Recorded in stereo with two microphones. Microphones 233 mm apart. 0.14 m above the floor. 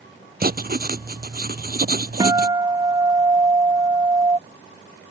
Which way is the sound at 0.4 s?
40° right (ahead or behind).